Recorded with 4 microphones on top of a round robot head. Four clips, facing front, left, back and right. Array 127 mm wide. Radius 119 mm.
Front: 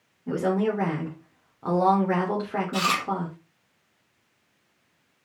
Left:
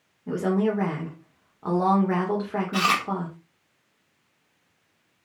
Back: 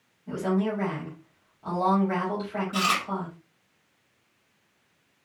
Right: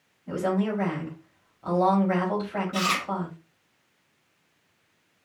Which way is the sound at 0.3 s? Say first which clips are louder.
Left 2 dB, front 3 dB; 45° left.